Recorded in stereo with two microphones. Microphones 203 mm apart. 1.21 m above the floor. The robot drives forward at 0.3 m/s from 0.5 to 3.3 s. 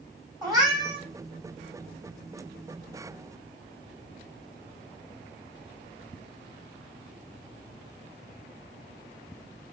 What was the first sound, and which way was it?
A cat meowing, 15° right (ahead or behind).